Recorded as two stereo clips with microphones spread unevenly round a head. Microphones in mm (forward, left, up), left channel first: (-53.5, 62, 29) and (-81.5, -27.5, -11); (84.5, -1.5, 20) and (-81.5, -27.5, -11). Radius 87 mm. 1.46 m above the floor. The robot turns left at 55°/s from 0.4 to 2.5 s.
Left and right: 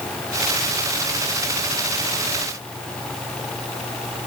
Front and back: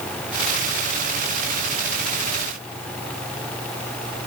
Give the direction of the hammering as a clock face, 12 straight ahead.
No hammering in this recording.